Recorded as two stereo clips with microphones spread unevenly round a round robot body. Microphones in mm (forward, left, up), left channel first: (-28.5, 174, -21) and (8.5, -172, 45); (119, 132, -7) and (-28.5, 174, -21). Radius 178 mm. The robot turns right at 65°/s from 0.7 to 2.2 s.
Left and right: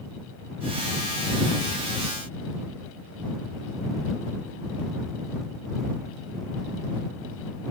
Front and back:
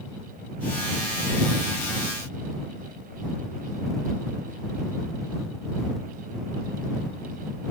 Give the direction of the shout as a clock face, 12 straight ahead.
No shout in this recording.